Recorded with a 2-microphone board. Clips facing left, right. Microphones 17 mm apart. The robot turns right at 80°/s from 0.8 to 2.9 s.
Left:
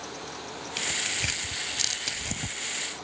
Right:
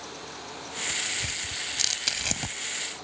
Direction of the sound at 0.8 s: 60° left (ahead or behind).